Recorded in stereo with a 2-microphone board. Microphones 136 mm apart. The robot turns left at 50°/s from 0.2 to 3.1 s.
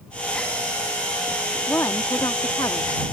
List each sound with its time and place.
1.7 s a woman speaking: 15° left (ahead or behind); by 3.0 s 25° left (ahead or behind)